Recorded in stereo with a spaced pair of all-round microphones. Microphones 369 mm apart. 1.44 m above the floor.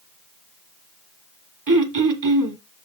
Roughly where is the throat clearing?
Right.